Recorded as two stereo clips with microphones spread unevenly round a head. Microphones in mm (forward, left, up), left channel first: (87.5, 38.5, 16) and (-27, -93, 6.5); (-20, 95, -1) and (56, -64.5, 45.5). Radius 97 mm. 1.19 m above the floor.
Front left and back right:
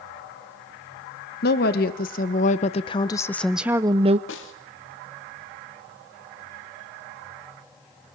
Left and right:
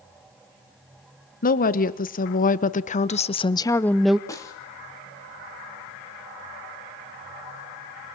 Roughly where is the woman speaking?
Left.